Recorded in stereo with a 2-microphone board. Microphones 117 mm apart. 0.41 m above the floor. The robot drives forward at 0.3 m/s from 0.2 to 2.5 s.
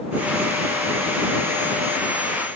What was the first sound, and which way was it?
Only background noise.